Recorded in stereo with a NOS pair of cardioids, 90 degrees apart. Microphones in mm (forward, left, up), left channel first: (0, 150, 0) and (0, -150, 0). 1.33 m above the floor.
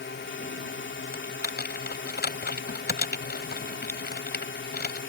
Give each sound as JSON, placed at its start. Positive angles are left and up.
{"t": 0.0, "sound": "a drone", "azimuth_deg": 35}
{"t": 1.1, "sound": "typing on a keyboard", "azimuth_deg": 30}